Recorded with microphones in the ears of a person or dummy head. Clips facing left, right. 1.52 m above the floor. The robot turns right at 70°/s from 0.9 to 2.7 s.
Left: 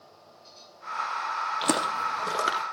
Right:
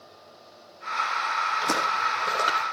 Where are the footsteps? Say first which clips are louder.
Left 3 dB; 55° left (ahead or behind), 3 m; by 2.6 s 30° left (ahead or behind), 4.5 m.